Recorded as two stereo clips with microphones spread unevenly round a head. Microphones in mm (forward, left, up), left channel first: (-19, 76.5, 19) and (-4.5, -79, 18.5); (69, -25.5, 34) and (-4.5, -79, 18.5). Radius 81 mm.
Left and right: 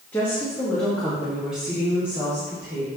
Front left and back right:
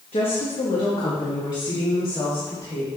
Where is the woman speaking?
20° left, 1.4 m; by 2.9 s 10° right, 2.5 m.